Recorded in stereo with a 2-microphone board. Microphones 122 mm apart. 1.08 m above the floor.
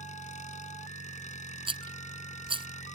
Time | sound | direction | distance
0.0 | an engine running | 75° left (ahead or behind) | ?
1.7 | a rattle | 45° right (ahead or behind) | ?